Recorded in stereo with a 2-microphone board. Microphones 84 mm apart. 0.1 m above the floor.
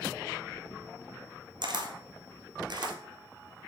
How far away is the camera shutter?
About 1.2 m.